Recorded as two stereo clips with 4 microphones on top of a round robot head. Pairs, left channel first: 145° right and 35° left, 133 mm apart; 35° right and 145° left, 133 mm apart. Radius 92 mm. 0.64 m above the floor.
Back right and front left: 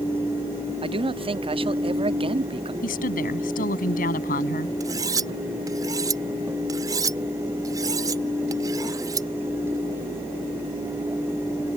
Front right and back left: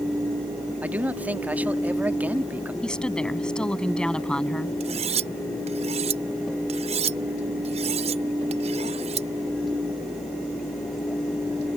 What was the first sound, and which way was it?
A man speaking, 70° left.